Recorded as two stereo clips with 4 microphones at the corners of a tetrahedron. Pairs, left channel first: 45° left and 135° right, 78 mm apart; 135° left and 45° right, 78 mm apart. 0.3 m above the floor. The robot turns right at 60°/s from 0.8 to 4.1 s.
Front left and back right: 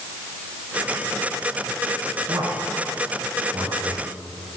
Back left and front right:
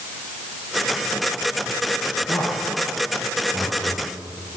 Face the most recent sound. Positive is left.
turn(degrees=-65)